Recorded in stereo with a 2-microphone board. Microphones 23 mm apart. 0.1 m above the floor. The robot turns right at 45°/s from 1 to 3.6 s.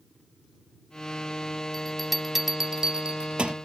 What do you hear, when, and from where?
1.7 s a bell: 10° left (ahead or behind); by 3.5 s 50° right (ahead or behind)